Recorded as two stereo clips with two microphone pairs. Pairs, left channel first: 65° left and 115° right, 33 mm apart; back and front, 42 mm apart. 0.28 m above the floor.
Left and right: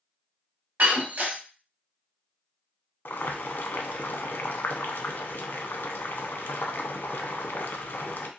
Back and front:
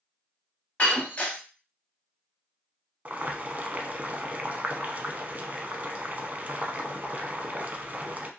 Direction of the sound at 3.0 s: 55° left.